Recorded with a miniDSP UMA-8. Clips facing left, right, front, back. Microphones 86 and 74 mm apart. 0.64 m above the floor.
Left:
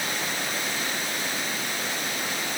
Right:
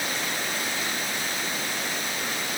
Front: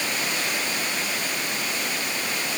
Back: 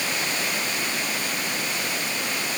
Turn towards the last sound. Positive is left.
No sound to turn to.